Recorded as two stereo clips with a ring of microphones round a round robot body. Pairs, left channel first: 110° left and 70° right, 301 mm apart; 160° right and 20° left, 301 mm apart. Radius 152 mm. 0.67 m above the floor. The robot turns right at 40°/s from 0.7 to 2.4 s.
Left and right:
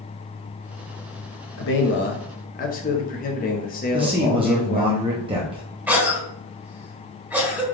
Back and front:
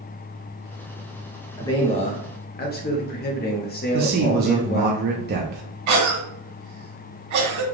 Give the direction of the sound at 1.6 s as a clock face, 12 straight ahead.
8 o'clock.